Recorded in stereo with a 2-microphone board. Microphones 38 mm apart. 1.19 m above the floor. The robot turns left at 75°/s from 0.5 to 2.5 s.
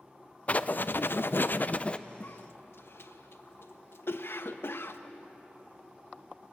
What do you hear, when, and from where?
0.5 s writing: 140° left, 0.5 m; by 2.0 s 30° left, 0.5 m
2.2 s a cough: 60° left (ahead or behind), 1.2 m; by 5.0 s 80° left, 1.2 m